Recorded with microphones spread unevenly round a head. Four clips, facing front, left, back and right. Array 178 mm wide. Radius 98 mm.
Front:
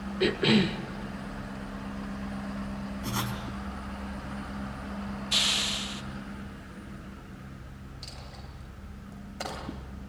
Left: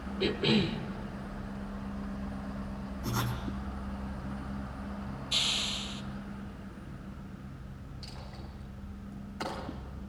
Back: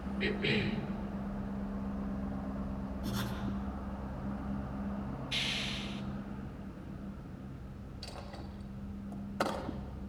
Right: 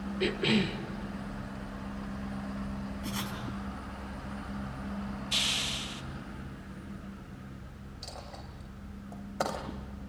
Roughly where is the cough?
Ahead.